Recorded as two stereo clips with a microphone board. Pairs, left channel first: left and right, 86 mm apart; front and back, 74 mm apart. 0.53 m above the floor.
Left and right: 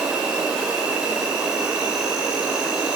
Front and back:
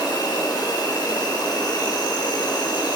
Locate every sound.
0.0 s an insect: 10° right, 1.6 m